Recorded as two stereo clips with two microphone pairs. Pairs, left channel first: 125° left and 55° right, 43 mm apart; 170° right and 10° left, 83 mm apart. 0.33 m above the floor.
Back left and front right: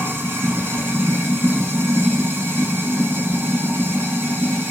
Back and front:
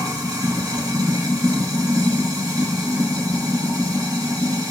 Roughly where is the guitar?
No guitar in this recording.